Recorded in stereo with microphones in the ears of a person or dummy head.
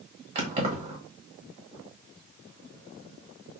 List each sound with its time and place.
0.3 s keys jangling: 35° right (ahead or behind), 1.5 m